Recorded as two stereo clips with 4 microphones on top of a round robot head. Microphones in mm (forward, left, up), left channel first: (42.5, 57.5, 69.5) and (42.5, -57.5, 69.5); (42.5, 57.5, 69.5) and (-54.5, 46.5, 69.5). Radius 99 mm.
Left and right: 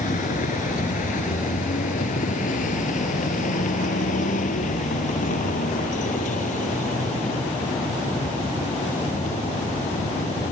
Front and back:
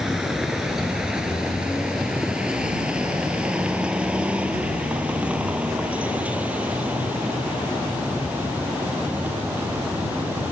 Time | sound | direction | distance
0.0 | a vehicle | 100° left | ?